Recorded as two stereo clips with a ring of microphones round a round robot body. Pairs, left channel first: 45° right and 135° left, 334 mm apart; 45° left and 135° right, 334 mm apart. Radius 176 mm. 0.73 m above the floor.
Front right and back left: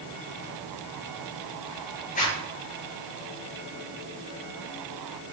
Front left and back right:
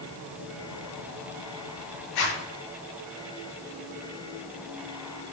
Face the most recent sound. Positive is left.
turn(degrees=20)